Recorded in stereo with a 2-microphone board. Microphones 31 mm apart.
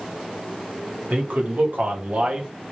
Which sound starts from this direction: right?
A man speaking, at 1.1 s.